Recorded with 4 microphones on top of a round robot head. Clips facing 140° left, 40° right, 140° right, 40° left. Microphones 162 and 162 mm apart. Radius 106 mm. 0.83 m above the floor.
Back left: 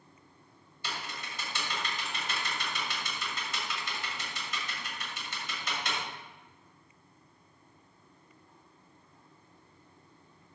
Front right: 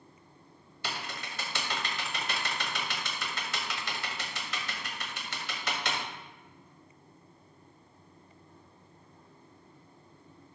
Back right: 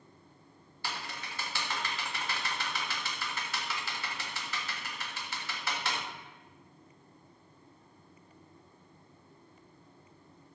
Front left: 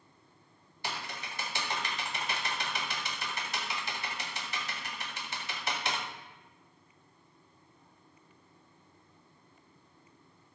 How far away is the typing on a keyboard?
About 1.6 m.